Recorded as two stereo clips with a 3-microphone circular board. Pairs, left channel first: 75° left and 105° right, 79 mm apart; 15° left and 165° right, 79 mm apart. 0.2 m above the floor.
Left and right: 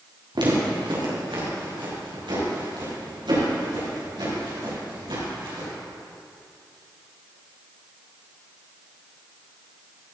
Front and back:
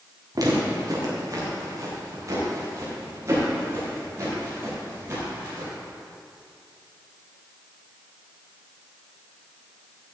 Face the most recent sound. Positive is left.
turn(degrees=-110)